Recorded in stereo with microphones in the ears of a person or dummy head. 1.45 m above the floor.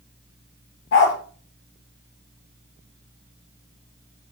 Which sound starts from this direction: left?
A dog barking, at 0.9 s.